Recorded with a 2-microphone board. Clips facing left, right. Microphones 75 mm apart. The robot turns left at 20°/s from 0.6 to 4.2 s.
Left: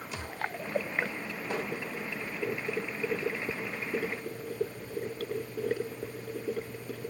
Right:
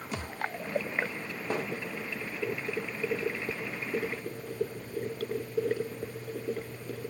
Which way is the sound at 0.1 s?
45° right (ahead or behind).